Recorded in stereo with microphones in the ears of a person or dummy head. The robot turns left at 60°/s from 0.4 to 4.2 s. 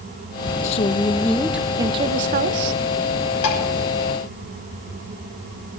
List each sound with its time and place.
0.6 s a woman speaking: 50° left, 1.4 m; by 2.8 s 80° right, 1.4 m
3.4 s dishes clattering: 85° left, 6 m; by 3.6 s 75° left (ahead or behind), 6 m